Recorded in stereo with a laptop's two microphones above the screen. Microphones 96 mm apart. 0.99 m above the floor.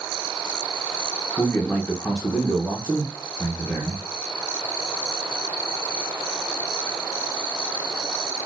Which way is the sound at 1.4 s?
10° left (ahead or behind).